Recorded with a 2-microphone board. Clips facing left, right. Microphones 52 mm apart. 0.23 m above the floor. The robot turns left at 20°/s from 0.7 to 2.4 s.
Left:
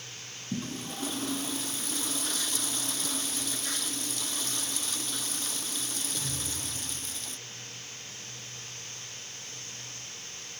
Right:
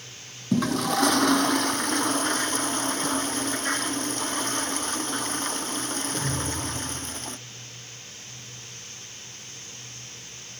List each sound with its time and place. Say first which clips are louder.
0.5 s a toilet flushing: right 13 dB; 105° right; by 7.4 s 135° right